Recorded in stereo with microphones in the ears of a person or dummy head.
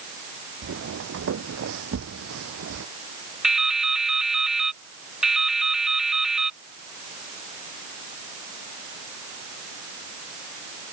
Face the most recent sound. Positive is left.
turn(degrees=-5)  # may be behind; listen again after turning